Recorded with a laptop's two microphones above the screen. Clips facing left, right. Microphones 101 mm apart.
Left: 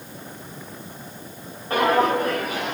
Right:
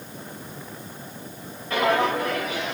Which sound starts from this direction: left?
Footsteps, at 1.7 s.